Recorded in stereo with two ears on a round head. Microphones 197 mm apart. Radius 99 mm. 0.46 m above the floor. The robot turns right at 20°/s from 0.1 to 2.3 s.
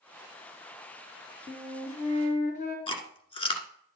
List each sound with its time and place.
1.5 s a flute: 20° left (ahead or behind), 3 m; by 2.8 s 35° left (ahead or behind), 3 m
2.9 s chewing: 25° left (ahead or behind), 1.4 m